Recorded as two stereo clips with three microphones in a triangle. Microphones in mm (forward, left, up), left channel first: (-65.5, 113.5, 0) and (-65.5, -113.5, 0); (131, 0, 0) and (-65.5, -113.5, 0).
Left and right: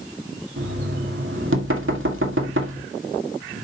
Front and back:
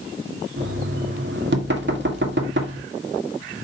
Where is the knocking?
115° right, 1.9 m.